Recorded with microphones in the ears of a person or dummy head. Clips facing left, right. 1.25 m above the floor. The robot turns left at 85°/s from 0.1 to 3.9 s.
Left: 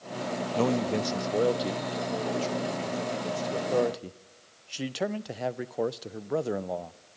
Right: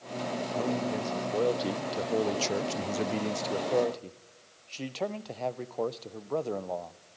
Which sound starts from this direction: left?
A man speaking, at 0.6 s.